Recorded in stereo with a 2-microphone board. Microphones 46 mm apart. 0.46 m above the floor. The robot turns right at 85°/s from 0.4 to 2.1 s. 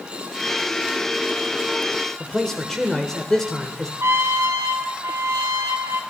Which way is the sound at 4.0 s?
70° right (ahead or behind).